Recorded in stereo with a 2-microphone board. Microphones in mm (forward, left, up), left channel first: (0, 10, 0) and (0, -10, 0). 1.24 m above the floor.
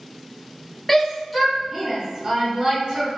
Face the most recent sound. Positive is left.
turn(degrees=-45)  # may be behind; listen again after turning